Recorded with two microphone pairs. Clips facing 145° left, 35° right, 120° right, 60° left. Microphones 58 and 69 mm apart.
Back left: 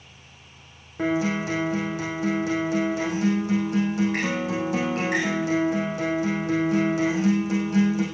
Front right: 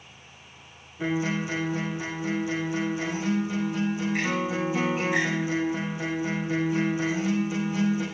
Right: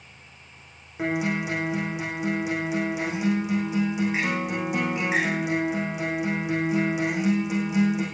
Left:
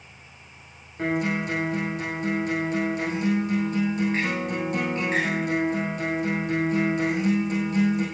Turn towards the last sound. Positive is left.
turn(degrees=160)